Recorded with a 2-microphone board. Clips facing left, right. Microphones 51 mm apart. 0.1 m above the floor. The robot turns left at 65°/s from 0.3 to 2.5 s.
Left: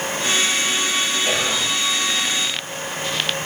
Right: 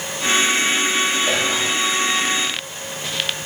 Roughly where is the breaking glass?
I don't hear breaking glass.